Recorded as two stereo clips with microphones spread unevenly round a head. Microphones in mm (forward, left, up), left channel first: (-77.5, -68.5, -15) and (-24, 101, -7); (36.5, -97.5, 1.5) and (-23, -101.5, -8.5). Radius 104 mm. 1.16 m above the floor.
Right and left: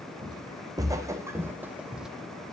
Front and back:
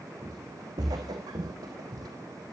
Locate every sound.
0.2 s footsteps: 135° left, 3.5 m; by 2.1 s 160° left, 2.5 m